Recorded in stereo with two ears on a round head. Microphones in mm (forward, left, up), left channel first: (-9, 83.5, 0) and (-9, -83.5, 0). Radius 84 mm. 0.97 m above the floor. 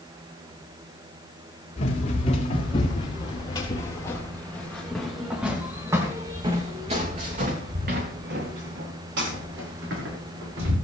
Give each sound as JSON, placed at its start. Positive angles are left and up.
{"t": 1.8, "sound": "running footsteps", "side_deg": 40, "distance_m": 6.0}